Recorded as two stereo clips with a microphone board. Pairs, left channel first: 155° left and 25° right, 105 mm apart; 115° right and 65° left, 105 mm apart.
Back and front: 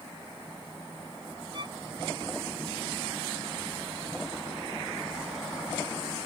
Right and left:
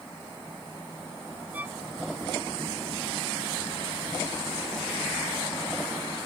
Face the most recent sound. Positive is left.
turn(degrees=0)